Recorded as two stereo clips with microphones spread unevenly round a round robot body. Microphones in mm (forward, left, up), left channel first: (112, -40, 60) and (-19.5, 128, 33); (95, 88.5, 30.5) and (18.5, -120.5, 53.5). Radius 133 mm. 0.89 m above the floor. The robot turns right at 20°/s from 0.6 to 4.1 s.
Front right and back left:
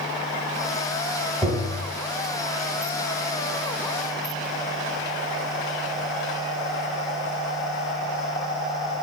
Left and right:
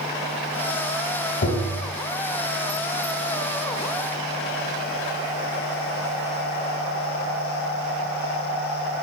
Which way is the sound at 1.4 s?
45° left.